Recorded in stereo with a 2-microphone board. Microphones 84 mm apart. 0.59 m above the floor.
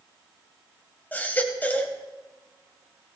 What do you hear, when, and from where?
1.1 s a baby crying: 20° left (ahead or behind), 1.6 m